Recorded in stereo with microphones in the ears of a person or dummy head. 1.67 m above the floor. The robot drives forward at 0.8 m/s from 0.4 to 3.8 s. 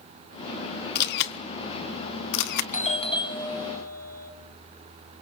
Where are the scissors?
I don't hear scissors.